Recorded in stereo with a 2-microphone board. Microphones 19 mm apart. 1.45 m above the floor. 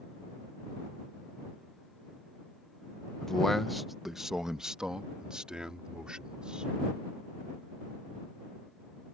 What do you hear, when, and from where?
3.2 s a man speaking: 30° left (ahead or behind); by 6.7 s 60° right (ahead or behind)